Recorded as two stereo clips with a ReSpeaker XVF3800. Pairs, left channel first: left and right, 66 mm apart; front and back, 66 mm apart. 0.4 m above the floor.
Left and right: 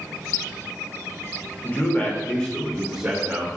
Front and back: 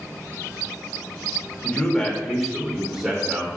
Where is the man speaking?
60° left, 1.0 m; by 3.5 s 145° right, 0.9 m.